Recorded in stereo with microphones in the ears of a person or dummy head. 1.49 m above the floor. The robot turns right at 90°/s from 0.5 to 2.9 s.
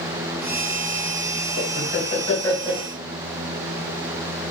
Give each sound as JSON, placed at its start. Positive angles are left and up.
{"t": 1.6, "sound": "laughter", "azimuth_deg": 85, "distance_m": 1.8}